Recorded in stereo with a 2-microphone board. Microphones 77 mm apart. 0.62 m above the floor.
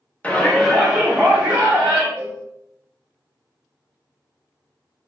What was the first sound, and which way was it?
A shout, 20° left (ahead or behind).